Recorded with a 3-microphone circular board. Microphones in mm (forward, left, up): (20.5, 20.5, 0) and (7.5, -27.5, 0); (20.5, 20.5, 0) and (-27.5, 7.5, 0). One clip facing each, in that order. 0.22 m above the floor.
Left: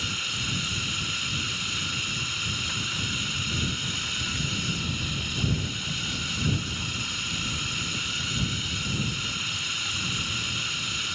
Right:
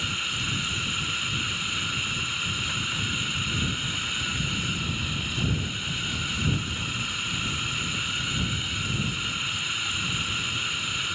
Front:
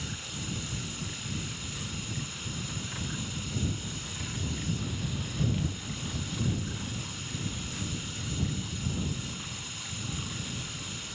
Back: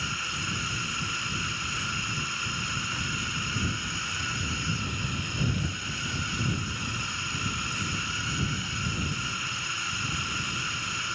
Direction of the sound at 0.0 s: Straight behind.